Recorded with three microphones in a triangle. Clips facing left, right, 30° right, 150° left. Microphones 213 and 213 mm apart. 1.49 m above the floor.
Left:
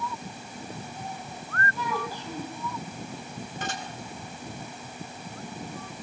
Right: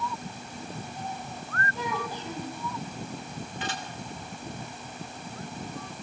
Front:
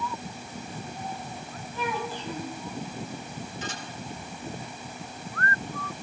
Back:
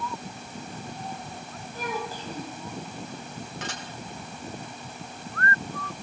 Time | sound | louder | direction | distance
1.8 | a child speaking | even, front 1 dB | 160° right | 6.5 m
3.6 | dishes clattering | left 1 dB, back 1 dB | 135° left | 5.5 m